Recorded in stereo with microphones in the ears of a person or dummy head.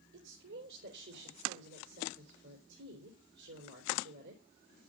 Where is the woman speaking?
60° right (ahead or behind), 3.5 m.